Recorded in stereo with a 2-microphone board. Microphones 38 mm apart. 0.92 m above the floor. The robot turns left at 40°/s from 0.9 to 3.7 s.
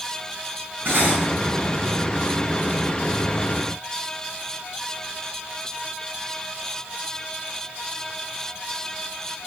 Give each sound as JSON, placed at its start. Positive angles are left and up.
{"t": 0.8, "sound": "cutlery clinking", "side_deg": -85, "distance_m": 5.5}